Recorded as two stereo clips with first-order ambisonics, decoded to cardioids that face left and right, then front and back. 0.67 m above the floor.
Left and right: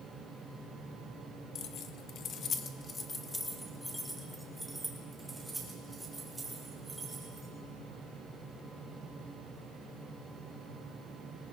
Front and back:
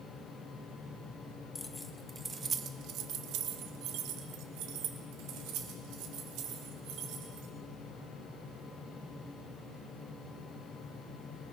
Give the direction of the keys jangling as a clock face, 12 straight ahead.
10 o'clock.